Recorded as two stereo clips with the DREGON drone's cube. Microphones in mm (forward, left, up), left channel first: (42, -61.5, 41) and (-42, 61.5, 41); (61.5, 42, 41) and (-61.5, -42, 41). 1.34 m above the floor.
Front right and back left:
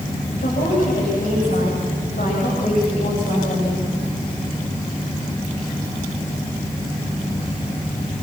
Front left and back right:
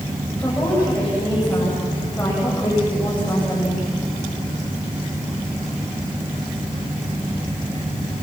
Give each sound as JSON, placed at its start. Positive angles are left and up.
{"t": 0.4, "sound": "a woman speaking", "azimuth_deg": -45, "distance_m": 8.5}